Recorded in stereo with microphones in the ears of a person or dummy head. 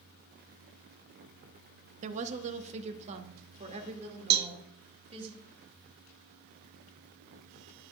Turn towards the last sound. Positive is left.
turn(degrees=-55)  # may be behind; listen again after turning